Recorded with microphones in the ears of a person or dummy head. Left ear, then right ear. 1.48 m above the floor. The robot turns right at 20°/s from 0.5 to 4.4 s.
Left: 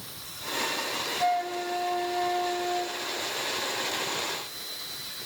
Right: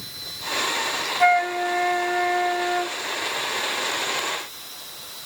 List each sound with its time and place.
1.2 s a flute: 120° right, 0.7 m; by 3.0 s 85° right, 0.7 m